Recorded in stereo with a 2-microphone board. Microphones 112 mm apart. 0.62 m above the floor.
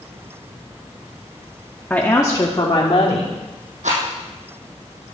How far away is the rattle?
About 4 m.